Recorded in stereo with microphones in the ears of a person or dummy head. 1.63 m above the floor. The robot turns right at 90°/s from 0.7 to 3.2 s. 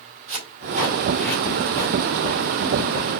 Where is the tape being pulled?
35° right (ahead or behind), 2 m; by 2.0 s 50° left (ahead or behind), 2 m.